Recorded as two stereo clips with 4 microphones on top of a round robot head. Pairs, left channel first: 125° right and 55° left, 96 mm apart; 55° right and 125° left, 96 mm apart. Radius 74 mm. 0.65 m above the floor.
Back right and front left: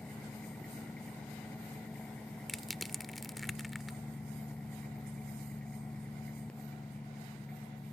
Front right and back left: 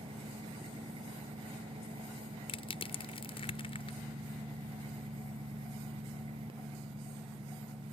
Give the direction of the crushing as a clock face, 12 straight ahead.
1 o'clock.